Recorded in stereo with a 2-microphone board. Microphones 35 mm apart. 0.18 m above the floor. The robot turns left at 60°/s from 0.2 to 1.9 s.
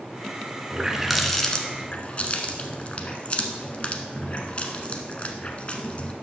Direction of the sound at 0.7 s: 25° right (ahead or behind).